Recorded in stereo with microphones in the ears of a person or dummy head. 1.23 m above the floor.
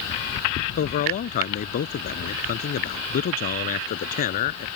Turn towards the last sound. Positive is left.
turn(degrees=45)  # may be behind; listen again after turning